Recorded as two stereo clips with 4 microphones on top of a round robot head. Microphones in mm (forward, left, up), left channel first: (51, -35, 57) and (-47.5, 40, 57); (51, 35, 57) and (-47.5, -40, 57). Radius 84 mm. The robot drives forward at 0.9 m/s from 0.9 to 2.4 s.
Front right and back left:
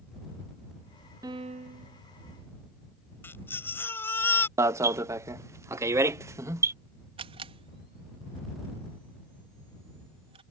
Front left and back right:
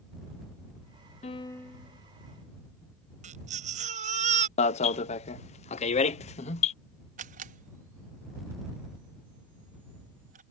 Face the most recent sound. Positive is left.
turn(degrees=-170)